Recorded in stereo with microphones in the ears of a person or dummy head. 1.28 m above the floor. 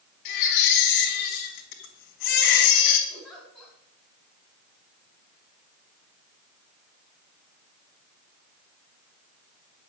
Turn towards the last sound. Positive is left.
turn(degrees=0)  # may be behind; listen again after turning